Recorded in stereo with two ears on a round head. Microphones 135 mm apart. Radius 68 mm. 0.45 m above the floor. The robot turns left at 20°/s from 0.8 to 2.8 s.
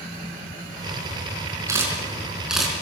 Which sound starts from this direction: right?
A camera shutter, at 1.7 s.